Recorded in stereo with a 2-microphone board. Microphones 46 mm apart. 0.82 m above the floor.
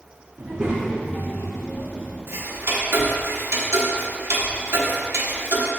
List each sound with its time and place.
0.4 s a child speaking: 35° right (ahead or behind), 1.1 m; by 2.2 s 80° left, 2 m
2.3 s ticking: 60° right (ahead or behind), 0.9 m